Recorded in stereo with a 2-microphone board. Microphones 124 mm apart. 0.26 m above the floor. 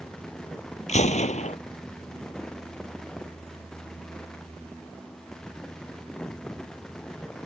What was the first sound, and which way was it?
A gunshot, 70° left (ahead or behind).